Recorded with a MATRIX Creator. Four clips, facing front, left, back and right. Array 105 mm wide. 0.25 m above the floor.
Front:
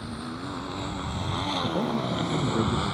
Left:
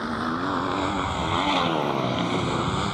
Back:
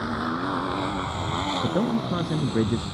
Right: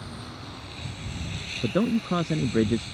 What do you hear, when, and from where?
0.0 s a motorcycle: 135° left; by 3.0 s 60° left
1.6 s a man speaking: 115° right